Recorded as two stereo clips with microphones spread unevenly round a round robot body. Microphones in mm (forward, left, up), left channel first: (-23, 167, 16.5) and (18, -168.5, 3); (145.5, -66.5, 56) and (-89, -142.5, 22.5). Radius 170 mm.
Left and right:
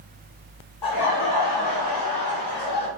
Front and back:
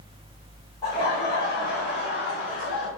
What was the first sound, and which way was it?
Laughter, 100° left.